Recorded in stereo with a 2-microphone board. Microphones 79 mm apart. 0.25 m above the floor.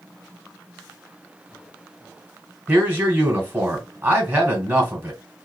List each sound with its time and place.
2.7 s a man speaking: 20° right (ahead or behind), 1.4 m